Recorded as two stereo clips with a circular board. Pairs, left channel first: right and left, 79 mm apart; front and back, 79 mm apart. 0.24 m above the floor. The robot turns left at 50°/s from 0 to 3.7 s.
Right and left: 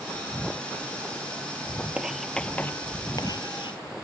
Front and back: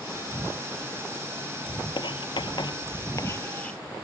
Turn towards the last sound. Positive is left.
turn(degrees=-75)